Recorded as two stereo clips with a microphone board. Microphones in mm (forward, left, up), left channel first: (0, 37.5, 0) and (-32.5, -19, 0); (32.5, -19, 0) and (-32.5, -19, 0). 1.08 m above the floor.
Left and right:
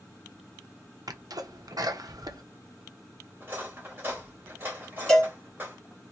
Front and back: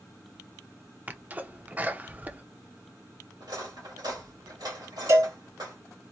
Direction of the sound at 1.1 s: 115° right.